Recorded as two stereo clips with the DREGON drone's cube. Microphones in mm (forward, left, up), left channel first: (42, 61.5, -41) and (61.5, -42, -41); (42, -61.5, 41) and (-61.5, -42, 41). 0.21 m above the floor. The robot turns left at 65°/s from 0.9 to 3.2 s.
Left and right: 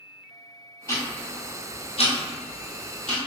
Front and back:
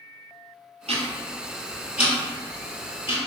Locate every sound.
0.9 s ticking: 165° left, 1.5 m; by 3.2 s 15° left, 1.5 m